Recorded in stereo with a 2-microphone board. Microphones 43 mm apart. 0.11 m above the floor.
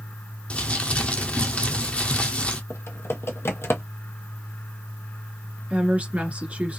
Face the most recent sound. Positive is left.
turn(degrees=-30)  # may be behind; listen again after turning